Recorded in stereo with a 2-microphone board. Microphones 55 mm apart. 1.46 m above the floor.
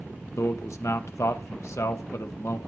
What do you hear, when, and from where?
0.4 s a man speaking: 65° left (ahead or behind), 1.1 m